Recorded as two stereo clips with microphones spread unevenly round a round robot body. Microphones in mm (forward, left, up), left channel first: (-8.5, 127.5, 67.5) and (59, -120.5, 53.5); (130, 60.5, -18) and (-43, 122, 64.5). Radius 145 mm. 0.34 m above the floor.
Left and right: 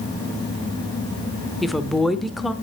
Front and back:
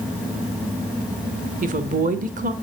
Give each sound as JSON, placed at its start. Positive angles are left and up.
{"t": 1.6, "sound": "a woman speaking", "azimuth_deg": -155, "distance_m": 0.8}